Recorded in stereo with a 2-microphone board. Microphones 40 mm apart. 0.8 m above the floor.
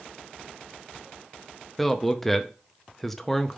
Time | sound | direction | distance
1.8 | a man speaking | 5° left (ahead or behind) | 0.5 m